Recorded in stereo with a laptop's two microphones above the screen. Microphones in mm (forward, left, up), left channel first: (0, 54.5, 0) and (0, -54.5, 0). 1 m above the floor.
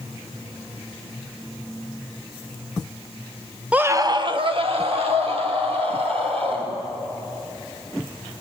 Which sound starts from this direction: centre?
A scream, at 3.7 s.